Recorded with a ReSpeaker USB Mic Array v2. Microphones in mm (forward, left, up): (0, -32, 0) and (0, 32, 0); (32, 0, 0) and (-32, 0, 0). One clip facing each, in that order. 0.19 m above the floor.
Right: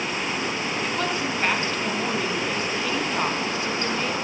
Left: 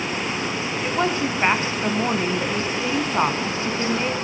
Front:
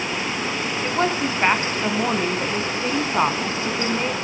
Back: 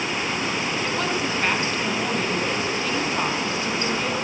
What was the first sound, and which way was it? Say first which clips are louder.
A woman speaking: left 6 dB, front 3 dB; 40° left.